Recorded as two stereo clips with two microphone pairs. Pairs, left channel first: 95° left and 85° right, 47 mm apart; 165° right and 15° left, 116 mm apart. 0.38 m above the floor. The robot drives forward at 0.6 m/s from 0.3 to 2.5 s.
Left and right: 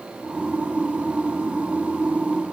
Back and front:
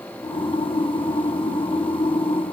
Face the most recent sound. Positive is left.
No sound to turn to.